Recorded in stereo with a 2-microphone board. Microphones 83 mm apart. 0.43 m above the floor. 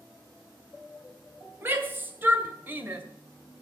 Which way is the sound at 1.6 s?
30° right (ahead or behind).